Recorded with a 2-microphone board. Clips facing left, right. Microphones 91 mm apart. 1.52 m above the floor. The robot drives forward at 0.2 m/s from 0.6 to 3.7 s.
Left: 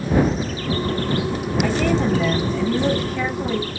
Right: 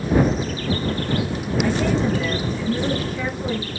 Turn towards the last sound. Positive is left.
turn(degrees=70)  # may be behind; listen again after turning